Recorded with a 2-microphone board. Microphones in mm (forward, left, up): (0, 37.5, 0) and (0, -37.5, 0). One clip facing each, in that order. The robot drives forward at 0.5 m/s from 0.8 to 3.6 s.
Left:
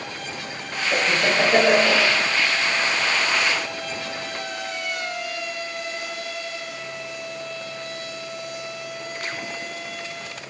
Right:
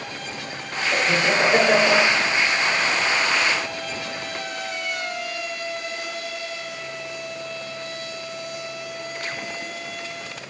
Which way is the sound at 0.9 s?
35° left (ahead or behind).